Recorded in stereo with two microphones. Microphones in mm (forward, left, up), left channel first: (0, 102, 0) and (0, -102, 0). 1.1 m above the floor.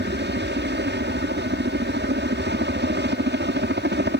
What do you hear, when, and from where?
0.0 s a helicopter: 60° right (ahead or behind)